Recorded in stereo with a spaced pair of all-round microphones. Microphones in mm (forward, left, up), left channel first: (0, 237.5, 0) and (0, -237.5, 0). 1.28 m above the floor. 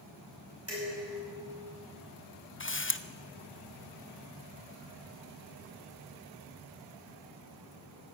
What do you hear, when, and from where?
0.7 s dishes clattering: 30° right (ahead or behind), 5.5 m
2.6 s a camera shutter: 25° left (ahead or behind), 0.6 m